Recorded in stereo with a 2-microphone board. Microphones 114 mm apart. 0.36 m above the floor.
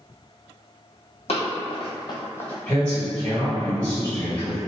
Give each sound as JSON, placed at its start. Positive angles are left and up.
{"t": 1.3, "sound": "running footsteps", "side_deg": 70, "distance_m": 0.9}
{"t": 2.7, "sound": "a man speaking", "side_deg": 15, "distance_m": 1.6}